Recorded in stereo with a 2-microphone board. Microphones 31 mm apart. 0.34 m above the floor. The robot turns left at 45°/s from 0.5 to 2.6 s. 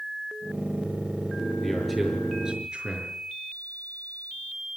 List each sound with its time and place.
1.6 s a man speaking: 20° left, 6 m; by 3.2 s 25° right, 6 m